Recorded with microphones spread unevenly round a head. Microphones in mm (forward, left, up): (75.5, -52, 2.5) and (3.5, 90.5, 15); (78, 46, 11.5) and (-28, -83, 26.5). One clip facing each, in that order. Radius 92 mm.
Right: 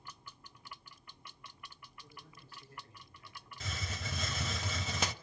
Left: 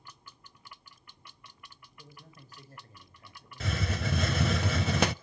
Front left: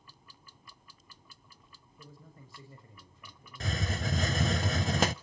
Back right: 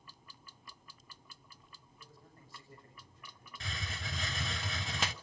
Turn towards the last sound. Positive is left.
turn(degrees=90)